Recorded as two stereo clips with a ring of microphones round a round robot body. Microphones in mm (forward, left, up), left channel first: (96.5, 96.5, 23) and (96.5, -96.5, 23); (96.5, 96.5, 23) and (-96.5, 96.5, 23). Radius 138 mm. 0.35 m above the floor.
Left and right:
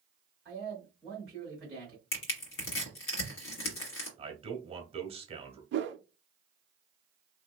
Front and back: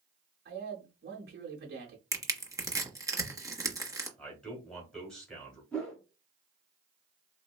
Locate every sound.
0.5 s a man speaking: 175° right, 1.2 m
2.1 s crushing: 105° left, 1.3 m
4.2 s a man speaking: 80° right, 1.2 m
5.7 s a whoosh: 85° right, 0.5 m